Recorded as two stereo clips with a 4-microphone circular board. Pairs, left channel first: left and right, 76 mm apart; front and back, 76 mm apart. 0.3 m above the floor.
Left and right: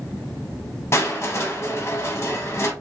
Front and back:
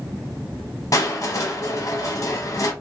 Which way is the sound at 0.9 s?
40° left.